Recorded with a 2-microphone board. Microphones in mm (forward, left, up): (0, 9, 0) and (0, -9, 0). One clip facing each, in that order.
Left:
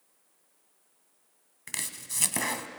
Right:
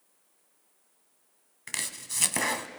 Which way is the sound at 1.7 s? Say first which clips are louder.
Right 2 dB; 5° right (ahead or behind).